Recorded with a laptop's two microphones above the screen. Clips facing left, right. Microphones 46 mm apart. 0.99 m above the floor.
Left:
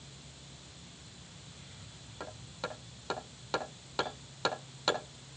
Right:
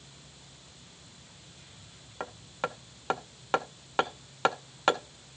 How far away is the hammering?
About 1.5 m.